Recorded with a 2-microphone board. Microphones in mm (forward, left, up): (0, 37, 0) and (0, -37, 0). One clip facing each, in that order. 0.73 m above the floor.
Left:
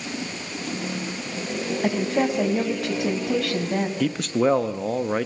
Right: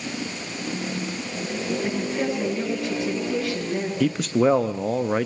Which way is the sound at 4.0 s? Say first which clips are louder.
Right 3 dB; centre (ahead or behind).